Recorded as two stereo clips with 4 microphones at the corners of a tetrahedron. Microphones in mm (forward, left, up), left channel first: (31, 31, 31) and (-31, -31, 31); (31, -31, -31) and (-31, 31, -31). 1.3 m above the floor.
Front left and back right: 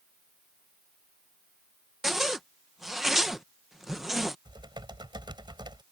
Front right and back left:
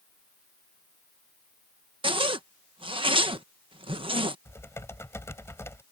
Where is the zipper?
135° left.